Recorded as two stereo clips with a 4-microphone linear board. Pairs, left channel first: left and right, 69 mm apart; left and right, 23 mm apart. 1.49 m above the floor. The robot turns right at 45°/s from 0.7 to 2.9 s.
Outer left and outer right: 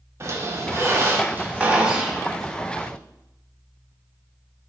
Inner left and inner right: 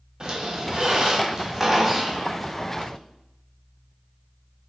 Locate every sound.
0.2 s a squeak: 75° right, 0.5 m; by 2.9 s 25° left, 0.5 m